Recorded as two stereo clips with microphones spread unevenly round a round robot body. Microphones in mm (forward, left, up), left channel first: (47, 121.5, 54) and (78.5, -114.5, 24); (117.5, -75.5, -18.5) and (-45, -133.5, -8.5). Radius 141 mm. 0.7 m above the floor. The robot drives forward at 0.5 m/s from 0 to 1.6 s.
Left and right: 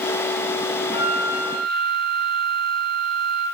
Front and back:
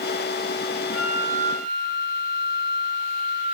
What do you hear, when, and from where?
0.9 s a flute: 120° right, 1.5 m; by 3.5 s 130° right, 1.7 m